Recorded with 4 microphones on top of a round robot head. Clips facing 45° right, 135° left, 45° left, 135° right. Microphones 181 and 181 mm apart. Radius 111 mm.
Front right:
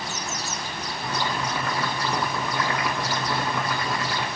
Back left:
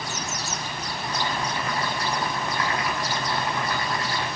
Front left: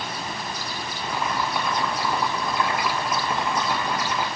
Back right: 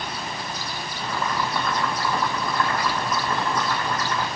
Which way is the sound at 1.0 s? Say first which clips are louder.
Front right 1 dB, even; 35° right.